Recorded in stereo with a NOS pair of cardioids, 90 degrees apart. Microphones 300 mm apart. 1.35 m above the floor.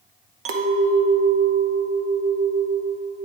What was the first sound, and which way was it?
A clink, 50° right.